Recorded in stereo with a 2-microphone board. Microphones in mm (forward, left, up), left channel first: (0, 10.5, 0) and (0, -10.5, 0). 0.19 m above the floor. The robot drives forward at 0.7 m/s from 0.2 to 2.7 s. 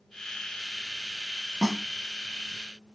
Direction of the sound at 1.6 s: 35° right (ahead or behind).